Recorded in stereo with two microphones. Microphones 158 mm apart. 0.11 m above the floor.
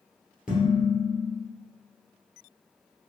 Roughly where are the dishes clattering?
Centre.